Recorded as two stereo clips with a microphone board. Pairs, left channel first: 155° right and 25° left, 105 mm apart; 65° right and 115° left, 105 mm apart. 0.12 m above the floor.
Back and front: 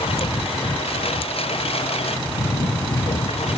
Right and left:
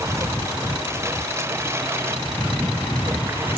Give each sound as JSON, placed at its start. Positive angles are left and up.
{"t": 0.0, "sound": "a lawn mower", "azimuth_deg": 175}